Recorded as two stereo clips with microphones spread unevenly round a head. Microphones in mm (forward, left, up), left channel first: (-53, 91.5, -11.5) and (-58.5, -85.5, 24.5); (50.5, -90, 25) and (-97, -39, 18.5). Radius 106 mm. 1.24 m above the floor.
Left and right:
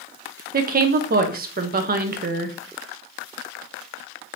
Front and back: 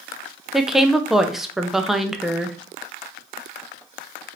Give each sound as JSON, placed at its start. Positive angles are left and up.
{"t": 0.5, "sound": "a woman speaking", "azimuth_deg": -115, "distance_m": 0.6}